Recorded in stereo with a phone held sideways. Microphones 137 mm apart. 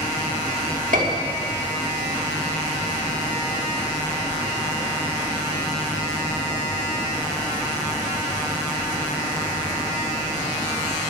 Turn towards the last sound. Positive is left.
turn(degrees=-75)  # may be behind; listen again after turning